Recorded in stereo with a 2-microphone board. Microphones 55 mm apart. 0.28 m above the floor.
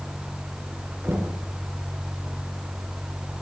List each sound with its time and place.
1.0 s knocking: 50° right (ahead or behind), 3 m